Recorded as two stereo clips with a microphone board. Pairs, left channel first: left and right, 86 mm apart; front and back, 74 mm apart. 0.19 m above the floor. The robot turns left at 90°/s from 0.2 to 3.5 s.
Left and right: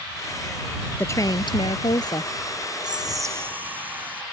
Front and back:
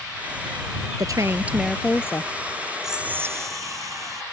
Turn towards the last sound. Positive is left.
turn(degrees=-155)